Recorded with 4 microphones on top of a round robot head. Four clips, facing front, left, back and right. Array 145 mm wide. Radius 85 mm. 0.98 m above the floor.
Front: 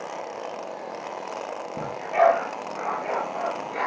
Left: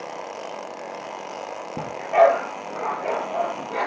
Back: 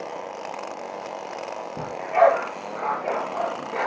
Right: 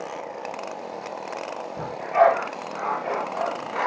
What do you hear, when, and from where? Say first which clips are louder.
1.8 s a dog barking: left 2 dB, back 2 dB; 85° left, 7.5 m; by 3.9 s 90° left, 9 m